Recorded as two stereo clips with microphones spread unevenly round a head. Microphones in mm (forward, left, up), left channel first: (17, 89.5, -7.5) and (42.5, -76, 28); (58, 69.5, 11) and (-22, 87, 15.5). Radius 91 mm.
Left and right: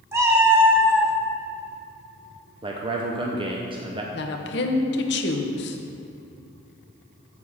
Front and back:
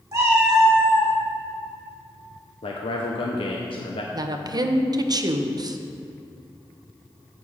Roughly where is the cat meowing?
Behind right.